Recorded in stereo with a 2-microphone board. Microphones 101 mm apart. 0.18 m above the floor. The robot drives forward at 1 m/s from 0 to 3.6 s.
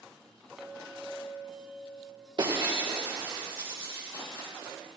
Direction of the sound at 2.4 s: 50° right (ahead or behind).